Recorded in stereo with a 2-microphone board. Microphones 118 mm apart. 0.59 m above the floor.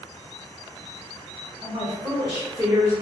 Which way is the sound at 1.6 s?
30° right (ahead or behind).